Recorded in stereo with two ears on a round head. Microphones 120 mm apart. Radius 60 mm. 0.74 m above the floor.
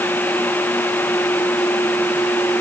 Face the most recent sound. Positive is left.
No sound to turn to.